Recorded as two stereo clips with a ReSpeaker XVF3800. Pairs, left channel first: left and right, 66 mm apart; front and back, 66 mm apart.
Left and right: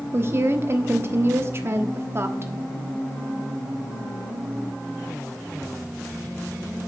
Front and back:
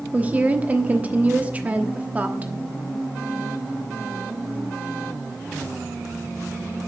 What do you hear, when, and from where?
0.1 s a woman speaking: 120° right, 1.1 m